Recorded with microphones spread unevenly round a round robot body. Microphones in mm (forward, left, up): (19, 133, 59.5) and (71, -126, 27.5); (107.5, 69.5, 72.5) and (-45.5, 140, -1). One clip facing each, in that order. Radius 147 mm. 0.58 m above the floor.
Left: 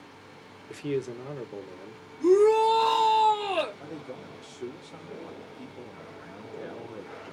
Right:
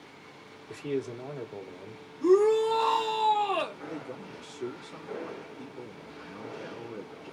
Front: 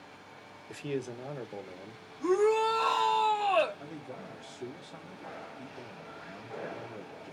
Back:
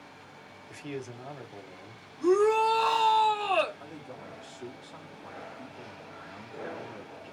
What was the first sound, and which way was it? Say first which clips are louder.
A man speaking: left 2 dB, front 4 dB; 35° left.